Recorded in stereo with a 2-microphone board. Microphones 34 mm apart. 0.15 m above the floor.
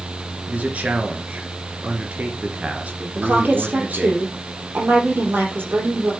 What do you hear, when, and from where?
0.5 s a man speaking: 45° right (ahead or behind), 2.5 m
3.1 s a woman speaking: 70° right (ahead or behind), 5.5 m